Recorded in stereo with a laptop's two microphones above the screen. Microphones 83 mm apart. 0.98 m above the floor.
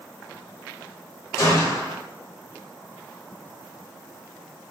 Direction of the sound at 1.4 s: 35° left (ahead or behind).